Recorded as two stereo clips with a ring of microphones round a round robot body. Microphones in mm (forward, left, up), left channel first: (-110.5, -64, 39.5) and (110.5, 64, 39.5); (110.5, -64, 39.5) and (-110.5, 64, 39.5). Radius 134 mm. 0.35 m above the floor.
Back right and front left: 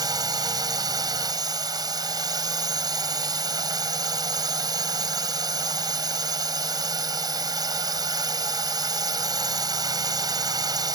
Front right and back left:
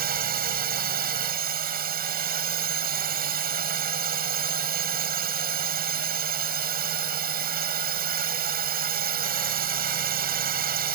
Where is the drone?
105° left.